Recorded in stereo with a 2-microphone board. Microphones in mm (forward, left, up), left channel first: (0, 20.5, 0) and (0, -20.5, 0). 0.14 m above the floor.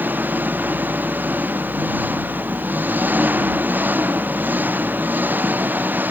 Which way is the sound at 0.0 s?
50° right (ahead or behind).